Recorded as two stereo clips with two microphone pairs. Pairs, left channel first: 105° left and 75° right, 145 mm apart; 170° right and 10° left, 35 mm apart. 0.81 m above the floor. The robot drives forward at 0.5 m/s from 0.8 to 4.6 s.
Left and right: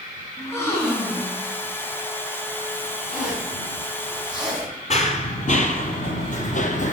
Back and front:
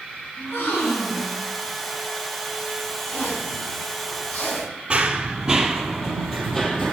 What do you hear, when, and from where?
0.4 s a gasp: 175° left, 3.5 m
3.1 s a zipper: 160° right, 5 m
4.9 s running footsteps: 75° left, 1.4 m; by 6.9 s 125° left, 1.8 m